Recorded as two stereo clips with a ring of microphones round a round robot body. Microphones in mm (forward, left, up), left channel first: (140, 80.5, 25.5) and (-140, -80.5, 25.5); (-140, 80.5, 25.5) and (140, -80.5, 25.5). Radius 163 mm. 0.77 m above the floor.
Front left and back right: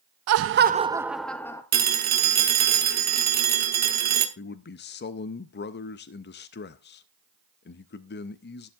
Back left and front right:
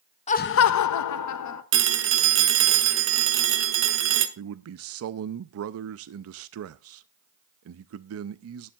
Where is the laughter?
145° right, 0.5 m; by 1.6 s 110° left, 1.1 m.